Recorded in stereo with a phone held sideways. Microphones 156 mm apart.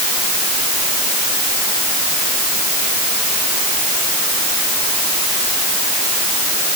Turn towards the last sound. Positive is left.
No sound to turn to.